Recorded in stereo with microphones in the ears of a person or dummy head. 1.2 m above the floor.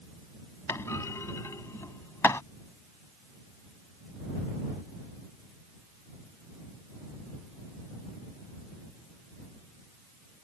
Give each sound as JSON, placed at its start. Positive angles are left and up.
{"t": 0.7, "sound": "a clunk", "side_deg": 10}